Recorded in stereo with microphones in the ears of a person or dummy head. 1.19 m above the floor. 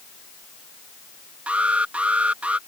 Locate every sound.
1.5 s an alarm: 10° right (ahead or behind)